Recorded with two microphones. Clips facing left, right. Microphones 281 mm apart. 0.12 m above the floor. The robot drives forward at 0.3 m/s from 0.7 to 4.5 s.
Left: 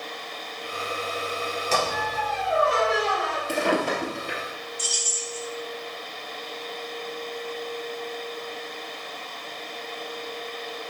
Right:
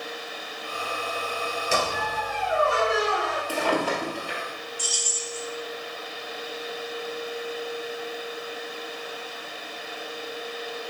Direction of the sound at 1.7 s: 10° right (ahead or behind).